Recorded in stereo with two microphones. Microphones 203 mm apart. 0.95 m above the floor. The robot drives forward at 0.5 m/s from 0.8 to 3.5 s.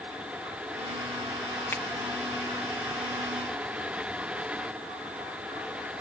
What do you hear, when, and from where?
1.7 s a finger snap: 10° left (ahead or behind); by 1.8 s 15° left (ahead or behind)